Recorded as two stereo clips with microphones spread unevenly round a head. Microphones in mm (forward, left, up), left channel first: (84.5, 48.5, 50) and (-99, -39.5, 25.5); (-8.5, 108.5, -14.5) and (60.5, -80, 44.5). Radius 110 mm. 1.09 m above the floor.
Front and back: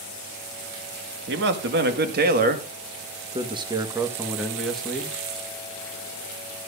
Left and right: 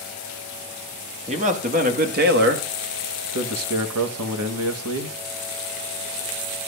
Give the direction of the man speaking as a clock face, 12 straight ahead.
4 o'clock.